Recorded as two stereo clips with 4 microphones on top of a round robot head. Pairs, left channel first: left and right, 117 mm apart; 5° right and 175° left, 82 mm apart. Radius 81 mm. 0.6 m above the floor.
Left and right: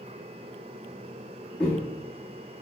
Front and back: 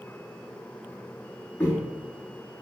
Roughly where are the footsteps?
Ahead.